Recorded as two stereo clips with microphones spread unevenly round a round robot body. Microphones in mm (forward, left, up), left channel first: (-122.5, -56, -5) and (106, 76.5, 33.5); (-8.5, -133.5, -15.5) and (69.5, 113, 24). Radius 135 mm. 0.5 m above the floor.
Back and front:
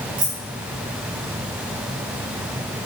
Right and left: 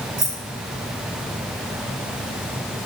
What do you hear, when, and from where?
0.2 s keys jangling: 30° left, 5 m